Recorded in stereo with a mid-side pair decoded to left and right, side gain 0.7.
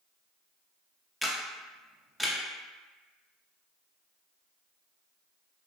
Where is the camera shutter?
Straight ahead, 0.6 m.